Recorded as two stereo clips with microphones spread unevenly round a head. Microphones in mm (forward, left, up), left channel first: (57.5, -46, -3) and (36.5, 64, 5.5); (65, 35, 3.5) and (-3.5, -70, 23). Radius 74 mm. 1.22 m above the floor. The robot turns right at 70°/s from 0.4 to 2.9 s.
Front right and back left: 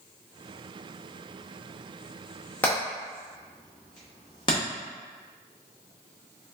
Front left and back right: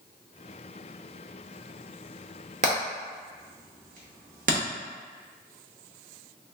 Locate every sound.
2.6 s hammering: 160° right, 0.9 m; by 4.6 s 140° right, 0.9 m